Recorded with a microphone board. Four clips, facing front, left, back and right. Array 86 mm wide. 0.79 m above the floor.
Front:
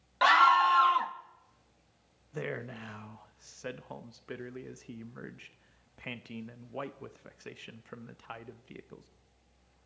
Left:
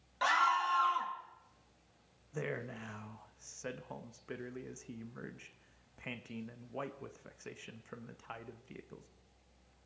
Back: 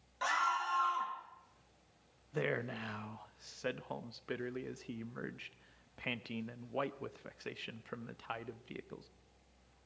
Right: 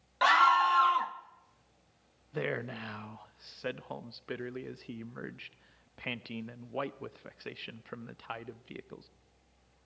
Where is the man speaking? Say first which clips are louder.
Right 5 dB, back 1 dB; 105° right, 0.5 m.